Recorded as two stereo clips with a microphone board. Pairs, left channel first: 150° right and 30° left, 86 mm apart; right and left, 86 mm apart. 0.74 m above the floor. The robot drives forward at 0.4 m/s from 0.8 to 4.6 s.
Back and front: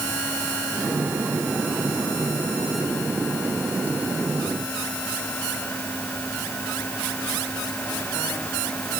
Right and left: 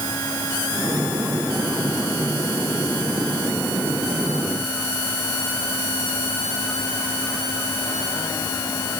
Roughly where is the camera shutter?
No camera shutter in this recording.